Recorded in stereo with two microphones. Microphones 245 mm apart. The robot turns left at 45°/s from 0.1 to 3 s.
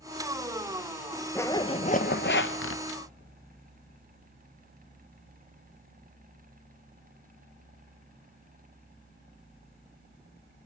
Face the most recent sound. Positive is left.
turn(degrees=95)